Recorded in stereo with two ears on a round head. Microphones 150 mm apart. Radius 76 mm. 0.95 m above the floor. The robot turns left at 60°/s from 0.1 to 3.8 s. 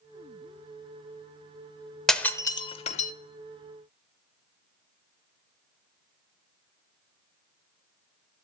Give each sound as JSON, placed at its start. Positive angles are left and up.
{"t": 2.1, "sound": "breaking glass", "side_deg": 0, "distance_m": 0.9}